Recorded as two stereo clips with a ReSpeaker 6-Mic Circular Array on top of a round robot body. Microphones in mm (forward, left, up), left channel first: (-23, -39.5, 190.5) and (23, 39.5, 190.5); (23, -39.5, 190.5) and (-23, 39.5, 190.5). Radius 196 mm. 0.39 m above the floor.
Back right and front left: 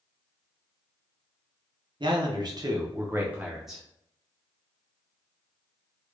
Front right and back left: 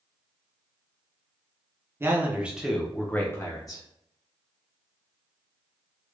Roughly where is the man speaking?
Ahead left.